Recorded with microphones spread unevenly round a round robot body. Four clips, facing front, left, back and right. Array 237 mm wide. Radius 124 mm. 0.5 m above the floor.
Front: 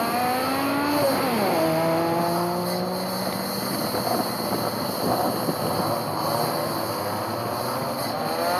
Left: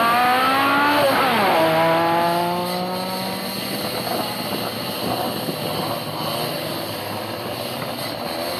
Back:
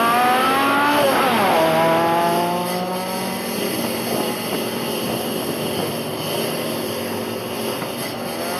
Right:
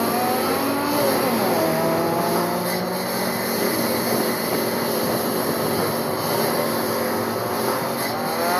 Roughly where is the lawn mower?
Behind right.